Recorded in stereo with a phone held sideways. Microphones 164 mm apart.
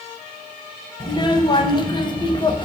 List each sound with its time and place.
1.0 s a child speaking: 30° left (ahead or behind), 0.5 m